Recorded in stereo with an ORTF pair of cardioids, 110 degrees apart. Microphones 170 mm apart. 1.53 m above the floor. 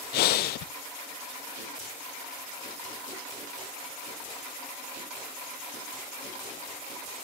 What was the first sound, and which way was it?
Breathing, 65° left.